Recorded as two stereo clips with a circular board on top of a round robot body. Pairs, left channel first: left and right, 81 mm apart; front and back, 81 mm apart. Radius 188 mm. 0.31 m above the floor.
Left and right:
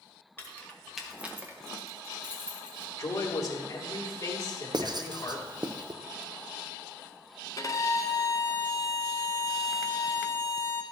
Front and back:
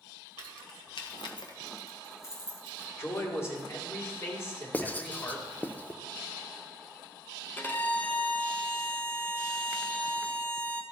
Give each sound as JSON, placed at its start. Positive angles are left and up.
{"t": 0.4, "sound": "keys jangling", "azimuth_deg": 25, "distance_m": 1.4}
{"t": 3.0, "sound": "a man speaking", "azimuth_deg": 50, "distance_m": 2.0}
{"t": 4.7, "sound": "writing", "azimuth_deg": -70, "distance_m": 0.8}
{"t": 7.6, "sound": "a violin", "azimuth_deg": 60, "distance_m": 1.1}